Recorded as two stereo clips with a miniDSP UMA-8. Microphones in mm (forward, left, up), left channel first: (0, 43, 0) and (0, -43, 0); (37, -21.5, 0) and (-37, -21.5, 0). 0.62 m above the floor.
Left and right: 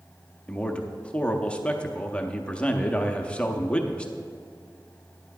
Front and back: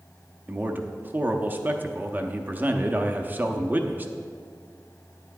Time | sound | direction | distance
0.5 | a man speaking | 155° left | 0.7 m